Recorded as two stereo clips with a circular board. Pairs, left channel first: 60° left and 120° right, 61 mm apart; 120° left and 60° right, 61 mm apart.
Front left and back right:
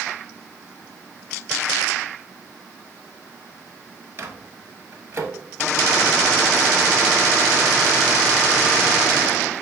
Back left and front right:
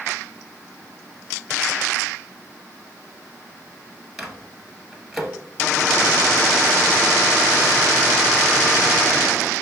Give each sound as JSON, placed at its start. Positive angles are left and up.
{"t": 4.2, "sound": "a microwave", "azimuth_deg": -150, "distance_m": 1.2}